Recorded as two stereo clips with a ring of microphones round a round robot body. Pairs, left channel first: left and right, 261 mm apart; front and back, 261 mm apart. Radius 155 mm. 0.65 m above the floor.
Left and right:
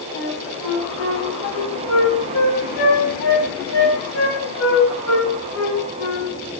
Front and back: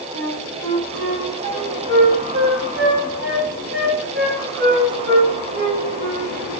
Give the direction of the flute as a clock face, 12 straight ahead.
8 o'clock.